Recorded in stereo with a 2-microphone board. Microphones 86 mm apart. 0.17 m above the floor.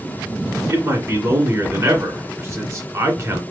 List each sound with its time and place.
0.7 s a man speaking: 35° right (ahead or behind), 2 m